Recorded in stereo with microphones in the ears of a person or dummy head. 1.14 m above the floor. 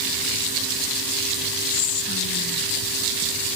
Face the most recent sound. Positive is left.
turn(degrees=45)  # may be behind; listen again after turning